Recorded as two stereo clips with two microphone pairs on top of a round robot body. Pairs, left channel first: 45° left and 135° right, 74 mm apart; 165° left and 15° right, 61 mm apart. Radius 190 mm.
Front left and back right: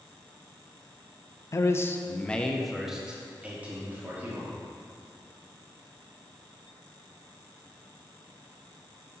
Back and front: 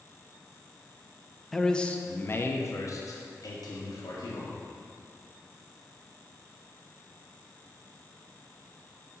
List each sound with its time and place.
1.5 s a man speaking: 70° left, 0.8 m; by 4.5 s 160° left, 1.6 m